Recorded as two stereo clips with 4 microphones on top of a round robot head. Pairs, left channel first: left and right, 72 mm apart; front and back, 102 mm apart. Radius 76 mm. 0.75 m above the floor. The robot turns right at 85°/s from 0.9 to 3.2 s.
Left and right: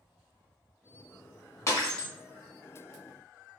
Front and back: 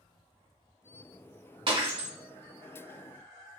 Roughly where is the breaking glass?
Behind left.